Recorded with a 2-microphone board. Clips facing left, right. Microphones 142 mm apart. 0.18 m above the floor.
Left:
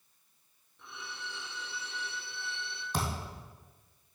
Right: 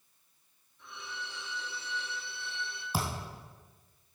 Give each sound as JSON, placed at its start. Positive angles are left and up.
{"t": 0.8, "sound": "a violin", "side_deg": 55, "distance_m": 3.0}
{"t": 2.9, "sound": "a thud", "side_deg": -10, "distance_m": 2.5}